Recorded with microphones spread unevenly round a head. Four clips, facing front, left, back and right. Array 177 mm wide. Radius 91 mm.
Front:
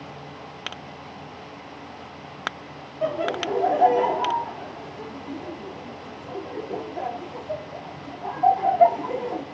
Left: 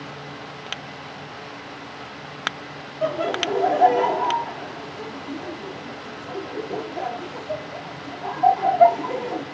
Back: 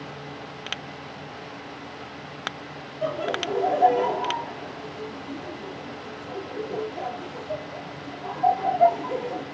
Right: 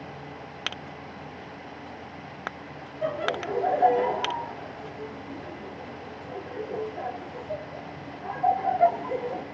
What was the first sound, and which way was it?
Laughter, 45° left.